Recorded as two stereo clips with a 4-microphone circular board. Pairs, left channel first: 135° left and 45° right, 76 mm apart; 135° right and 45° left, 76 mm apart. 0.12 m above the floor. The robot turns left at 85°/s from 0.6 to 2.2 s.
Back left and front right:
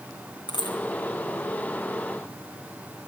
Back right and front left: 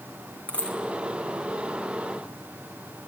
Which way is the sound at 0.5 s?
150° left.